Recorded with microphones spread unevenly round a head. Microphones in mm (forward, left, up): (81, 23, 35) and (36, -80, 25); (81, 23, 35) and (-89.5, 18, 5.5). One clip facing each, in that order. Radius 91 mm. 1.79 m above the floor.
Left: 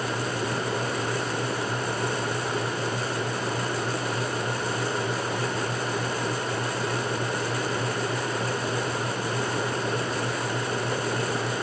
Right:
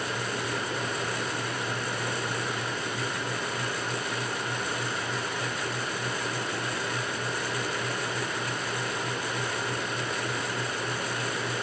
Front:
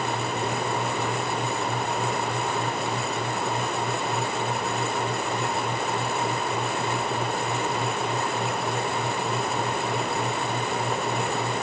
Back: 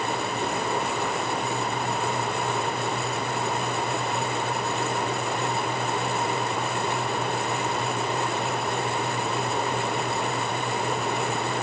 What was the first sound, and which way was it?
Only background noise.